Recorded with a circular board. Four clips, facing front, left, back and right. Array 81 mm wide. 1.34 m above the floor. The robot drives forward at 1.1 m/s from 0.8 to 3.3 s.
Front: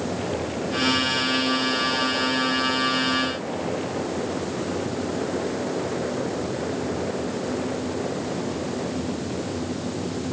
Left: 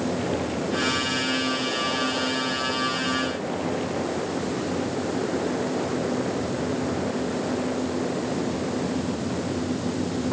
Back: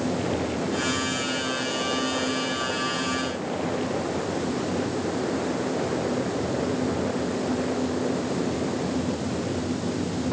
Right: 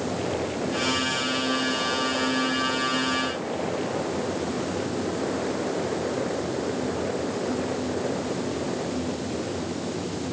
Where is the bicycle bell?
I don't hear a bicycle bell.